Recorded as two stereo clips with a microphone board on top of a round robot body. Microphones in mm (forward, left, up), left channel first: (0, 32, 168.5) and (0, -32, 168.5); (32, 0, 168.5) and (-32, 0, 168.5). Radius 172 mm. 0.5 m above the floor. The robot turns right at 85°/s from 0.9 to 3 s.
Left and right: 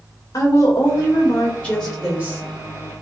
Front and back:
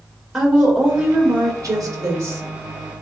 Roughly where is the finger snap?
No finger snap in this recording.